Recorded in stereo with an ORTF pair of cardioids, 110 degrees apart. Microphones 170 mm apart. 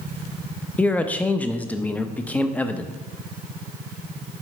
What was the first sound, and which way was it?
A man speaking, 10° left.